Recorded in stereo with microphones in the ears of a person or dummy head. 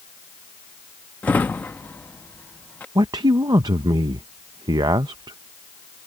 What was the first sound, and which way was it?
A drawer, 10° left (ahead or behind).